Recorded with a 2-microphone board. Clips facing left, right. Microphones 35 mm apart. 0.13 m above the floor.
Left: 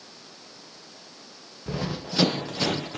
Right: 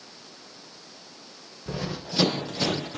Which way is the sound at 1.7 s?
20° left (ahead or behind).